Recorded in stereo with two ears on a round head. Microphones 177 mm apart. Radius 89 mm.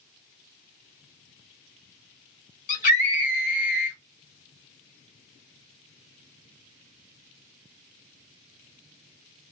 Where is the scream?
45° left (ahead or behind), 1.5 m.